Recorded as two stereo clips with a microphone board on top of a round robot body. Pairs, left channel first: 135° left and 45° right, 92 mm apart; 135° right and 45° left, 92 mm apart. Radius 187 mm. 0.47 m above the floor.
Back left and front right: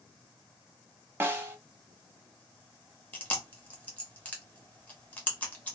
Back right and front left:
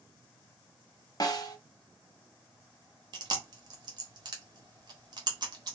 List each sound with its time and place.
1.2 s a snare drum: 105° right, 0.9 m
3.1 s chewing: 65° left, 1.2 m